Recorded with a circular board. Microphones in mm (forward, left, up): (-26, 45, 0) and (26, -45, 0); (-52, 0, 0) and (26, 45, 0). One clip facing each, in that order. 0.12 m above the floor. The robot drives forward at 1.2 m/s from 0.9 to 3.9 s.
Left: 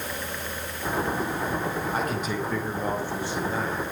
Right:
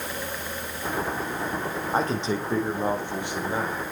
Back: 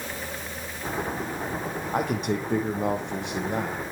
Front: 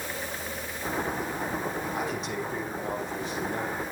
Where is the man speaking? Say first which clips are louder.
Right 2 dB, back 5 dB; 120° right, 5 m; by 3.8 s 135° right, 6.5 m.